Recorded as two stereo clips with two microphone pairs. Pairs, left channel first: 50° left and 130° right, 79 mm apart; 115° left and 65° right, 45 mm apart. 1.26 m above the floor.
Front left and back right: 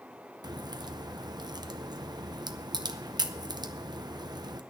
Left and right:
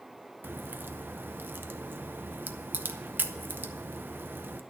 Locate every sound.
0.4 s a crack: 105° right, 0.7 m